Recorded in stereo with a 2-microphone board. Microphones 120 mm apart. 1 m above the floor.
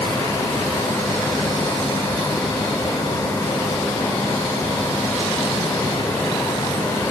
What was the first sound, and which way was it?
Only background noise.